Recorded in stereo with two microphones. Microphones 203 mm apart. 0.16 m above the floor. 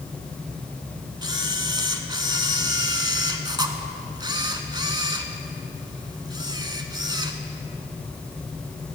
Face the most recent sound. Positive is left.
turn(degrees=-20)  # may be behind; listen again after turning